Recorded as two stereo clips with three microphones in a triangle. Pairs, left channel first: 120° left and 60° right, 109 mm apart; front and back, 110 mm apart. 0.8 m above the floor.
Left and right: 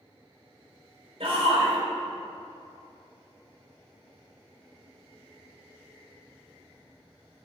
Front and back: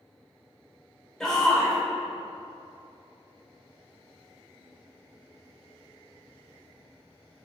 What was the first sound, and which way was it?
A shout, 85° right.